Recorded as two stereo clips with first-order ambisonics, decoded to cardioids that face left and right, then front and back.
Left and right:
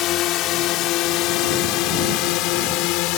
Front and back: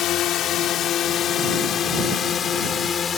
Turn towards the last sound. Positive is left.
turn(degrees=65)